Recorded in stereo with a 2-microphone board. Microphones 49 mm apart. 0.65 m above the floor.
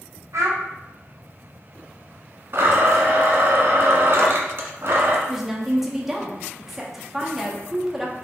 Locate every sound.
0.3 s a child speaking: 85° right, 1.5 m
2.5 s a blender: 55° right (ahead or behind), 1.1 m
5.3 s a woman speaking: 5° right (ahead or behind), 0.9 m